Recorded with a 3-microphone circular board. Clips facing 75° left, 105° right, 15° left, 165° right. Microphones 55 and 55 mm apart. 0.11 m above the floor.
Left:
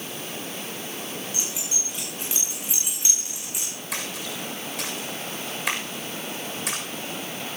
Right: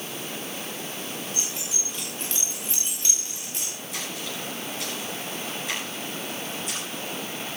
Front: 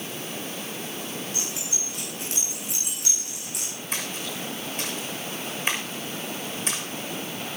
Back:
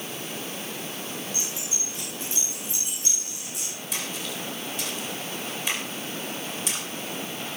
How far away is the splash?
About 6.5 m.